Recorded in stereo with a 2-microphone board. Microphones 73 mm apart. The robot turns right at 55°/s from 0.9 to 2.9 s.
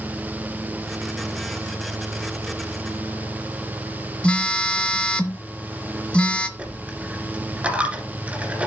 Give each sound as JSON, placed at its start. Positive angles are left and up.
{"t": 4.2, "sound": "a phone buzzing", "side_deg": 15, "distance_m": 0.8}
{"t": 6.6, "sound": "a dropped coin", "side_deg": -15, "distance_m": 2.0}